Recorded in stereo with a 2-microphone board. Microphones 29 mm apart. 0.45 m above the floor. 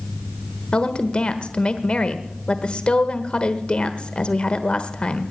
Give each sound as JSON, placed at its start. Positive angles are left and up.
{"t": 0.7, "sound": "a woman speaking", "side_deg": 45, "distance_m": 1.2}